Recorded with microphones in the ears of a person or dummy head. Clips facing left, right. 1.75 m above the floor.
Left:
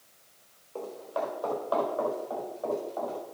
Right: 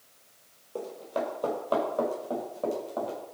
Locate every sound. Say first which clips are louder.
0.8 s running footsteps: right 1 dB; 30° right (ahead or behind), 4 m; by 3.2 s 45° right (ahead or behind), 6.5 m